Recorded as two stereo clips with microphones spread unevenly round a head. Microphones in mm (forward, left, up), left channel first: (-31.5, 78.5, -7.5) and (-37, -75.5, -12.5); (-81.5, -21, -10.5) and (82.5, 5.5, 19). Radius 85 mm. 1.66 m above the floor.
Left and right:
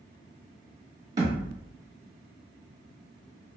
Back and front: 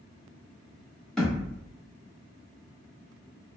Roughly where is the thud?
Ahead right.